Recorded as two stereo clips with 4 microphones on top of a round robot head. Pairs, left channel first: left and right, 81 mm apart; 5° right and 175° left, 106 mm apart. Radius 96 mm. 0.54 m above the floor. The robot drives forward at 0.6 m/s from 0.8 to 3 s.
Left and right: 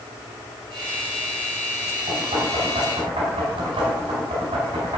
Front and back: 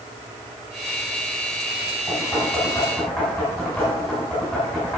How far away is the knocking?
About 4.5 m.